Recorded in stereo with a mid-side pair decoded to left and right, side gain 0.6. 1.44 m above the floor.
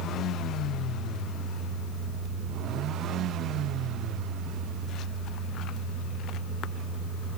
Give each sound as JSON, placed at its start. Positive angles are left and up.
{"t": 0.0, "sound": "a fan", "azimuth_deg": -55, "distance_m": 2.5}